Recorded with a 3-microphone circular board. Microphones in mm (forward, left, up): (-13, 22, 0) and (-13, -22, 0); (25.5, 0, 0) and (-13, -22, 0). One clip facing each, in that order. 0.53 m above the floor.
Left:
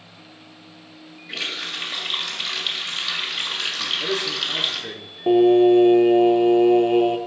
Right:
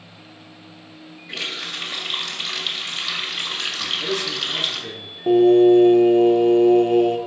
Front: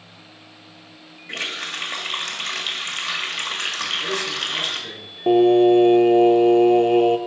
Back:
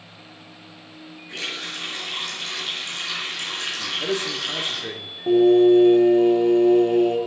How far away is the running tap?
About 1.9 m.